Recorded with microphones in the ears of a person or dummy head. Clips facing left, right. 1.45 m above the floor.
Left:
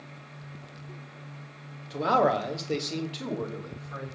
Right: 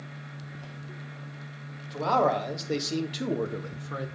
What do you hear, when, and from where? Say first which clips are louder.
1.9 s a man speaking: left 1 dB; 20° left (ahead or behind), 2 m; by 4.1 s 60° right (ahead or behind), 1.7 m